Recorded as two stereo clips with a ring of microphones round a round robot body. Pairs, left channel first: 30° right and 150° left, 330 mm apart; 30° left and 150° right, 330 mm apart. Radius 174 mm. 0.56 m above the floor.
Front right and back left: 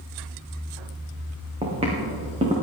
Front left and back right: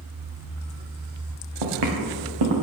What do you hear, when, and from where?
1.6 s footsteps: 135° right, 3 m